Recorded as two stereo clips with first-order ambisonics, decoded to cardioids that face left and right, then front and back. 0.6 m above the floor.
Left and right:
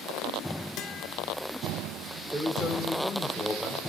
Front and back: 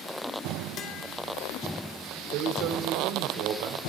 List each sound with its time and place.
0.8 s a guitar: 50° left, 3 m
2.3 s a man speaking: 175° right, 2 m